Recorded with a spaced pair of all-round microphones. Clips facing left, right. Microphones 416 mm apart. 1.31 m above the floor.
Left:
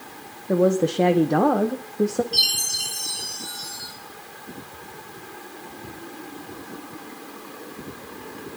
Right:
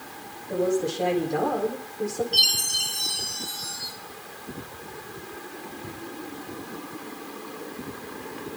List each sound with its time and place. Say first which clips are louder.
0.5 s a woman speaking: left 5 dB; 75° left (ahead or behind), 0.9 m
2.3 s a chime: even; 40° left (ahead or behind), 5.5 m